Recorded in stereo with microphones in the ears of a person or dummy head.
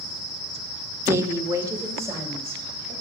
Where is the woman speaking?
25° right (ahead or behind), 0.9 m.